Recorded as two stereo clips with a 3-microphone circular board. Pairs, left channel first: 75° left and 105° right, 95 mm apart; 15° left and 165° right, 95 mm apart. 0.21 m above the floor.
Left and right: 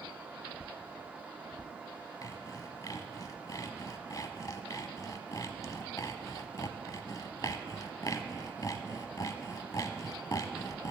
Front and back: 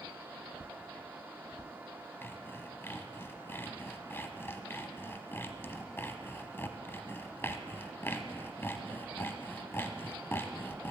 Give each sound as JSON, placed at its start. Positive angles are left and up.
{"t": 2.2, "sound": "sawing", "azimuth_deg": 65, "distance_m": 0.7}